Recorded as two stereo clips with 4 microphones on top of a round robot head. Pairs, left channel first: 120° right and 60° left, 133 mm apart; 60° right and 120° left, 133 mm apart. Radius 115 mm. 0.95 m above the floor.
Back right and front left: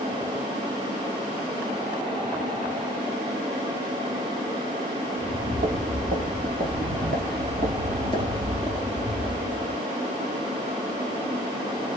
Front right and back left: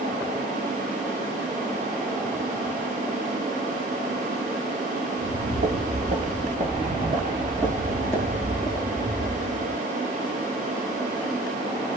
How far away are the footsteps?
About 2.0 m.